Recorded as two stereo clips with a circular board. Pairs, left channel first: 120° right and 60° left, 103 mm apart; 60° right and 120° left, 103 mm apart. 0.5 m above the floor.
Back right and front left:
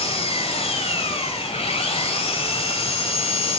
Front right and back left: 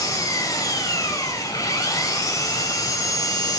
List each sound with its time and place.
0.0 s an engine running: 115° right, 1.7 m